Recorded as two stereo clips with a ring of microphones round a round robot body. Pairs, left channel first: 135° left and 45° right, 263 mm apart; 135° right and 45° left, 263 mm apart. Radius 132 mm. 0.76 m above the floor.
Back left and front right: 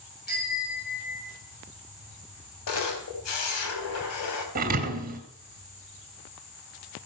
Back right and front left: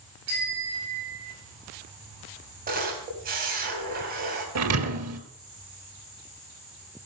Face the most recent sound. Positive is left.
turn(degrees=15)